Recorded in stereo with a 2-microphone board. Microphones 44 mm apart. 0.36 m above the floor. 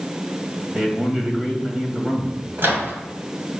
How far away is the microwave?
About 1.9 m.